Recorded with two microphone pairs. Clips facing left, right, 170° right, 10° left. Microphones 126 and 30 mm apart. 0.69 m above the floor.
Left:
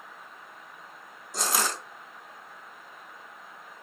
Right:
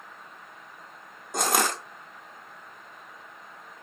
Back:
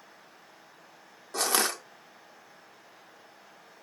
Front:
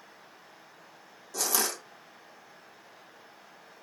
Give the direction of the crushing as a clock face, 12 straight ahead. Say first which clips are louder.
Right 4 dB, back 3 dB; 4 o'clock.